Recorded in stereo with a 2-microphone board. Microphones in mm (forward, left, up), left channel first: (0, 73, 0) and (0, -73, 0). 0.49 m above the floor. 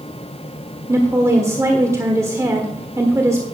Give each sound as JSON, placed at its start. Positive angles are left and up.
{"t": 0.9, "sound": "a woman speaking", "side_deg": -20, "distance_m": 1.3}